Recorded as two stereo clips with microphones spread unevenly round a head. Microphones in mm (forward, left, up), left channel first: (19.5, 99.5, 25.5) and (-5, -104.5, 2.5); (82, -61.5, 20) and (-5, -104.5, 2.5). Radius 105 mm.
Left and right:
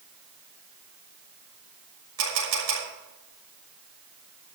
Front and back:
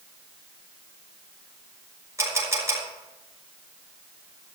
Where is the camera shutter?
95° right, 6.5 m.